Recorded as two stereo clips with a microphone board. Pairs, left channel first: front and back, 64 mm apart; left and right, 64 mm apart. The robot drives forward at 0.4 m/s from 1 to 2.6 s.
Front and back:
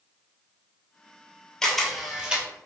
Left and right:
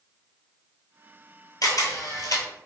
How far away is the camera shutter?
About 0.7 m.